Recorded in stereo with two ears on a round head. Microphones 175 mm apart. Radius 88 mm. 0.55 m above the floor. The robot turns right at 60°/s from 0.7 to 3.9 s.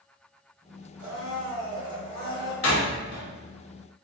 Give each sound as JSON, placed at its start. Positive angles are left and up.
{"t": 1.0, "sound": "a blender", "azimuth_deg": -15, "distance_m": 2.0}
{"t": 2.6, "sound": "a door slam", "side_deg": 65, "distance_m": 1.1}